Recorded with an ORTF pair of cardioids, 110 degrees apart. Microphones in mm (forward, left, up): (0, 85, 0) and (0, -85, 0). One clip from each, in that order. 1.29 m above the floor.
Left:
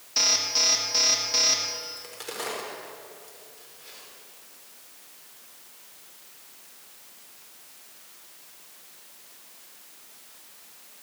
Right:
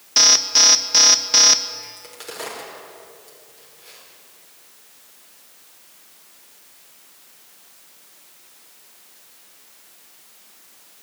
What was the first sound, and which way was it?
An alarm, 45° right.